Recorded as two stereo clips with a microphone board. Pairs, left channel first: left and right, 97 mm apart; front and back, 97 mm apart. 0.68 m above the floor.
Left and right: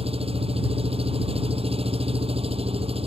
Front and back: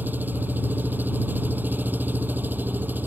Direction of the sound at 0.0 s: 110° right.